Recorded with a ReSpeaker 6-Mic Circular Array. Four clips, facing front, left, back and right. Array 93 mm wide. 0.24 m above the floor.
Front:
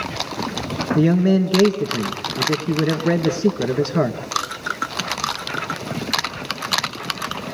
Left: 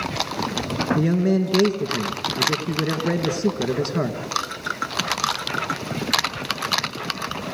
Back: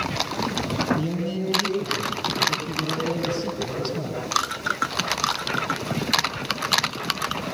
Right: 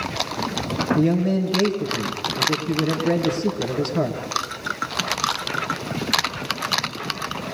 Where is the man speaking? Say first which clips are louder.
Even, front 10 dB; 15° left, 2.5 m.